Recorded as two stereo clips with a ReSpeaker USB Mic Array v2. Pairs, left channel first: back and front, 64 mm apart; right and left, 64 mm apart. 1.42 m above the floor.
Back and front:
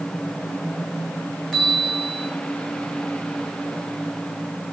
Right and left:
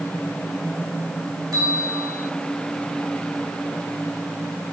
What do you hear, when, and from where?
1.5 s a bell: 100° left, 2.5 m